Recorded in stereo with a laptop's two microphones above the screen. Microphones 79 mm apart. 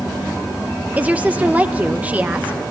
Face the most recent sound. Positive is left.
turn(degrees=-20)  # may be behind; listen again after turning